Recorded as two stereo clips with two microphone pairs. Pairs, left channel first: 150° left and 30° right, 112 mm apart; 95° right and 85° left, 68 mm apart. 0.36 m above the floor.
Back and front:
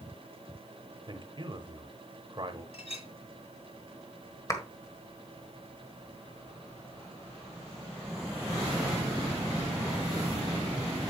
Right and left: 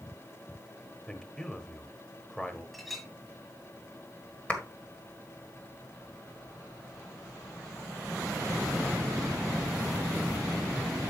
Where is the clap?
160° right, 1.6 m.